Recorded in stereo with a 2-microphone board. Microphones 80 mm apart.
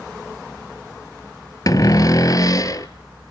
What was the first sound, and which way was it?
A cupboard door, 50° left (ahead or behind).